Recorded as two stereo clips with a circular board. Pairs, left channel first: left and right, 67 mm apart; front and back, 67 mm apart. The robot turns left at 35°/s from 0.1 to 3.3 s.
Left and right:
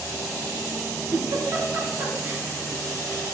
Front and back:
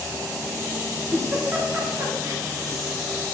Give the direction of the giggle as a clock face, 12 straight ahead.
3 o'clock.